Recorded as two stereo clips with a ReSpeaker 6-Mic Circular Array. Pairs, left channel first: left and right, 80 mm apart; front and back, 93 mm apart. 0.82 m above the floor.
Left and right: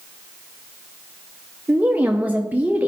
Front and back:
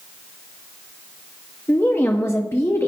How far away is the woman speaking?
About 0.6 m.